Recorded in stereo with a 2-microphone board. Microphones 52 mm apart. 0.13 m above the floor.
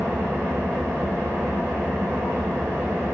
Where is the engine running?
70° right (ahead or behind), 1.0 m.